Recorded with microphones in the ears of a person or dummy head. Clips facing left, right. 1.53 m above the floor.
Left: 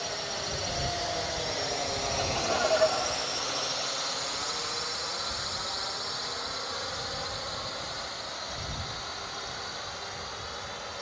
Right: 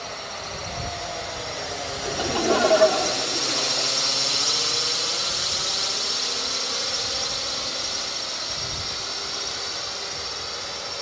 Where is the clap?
No clap in this recording.